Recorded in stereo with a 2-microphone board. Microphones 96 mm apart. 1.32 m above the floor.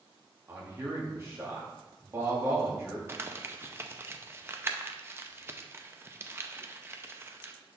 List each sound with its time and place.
0.5 s a man speaking: 25° right (ahead or behind), 2 m
3.1 s crumpling: 25° right (ahead or behind), 0.5 m